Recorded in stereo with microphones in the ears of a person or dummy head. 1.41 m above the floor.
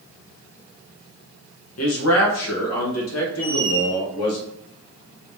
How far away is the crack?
No crack in this recording.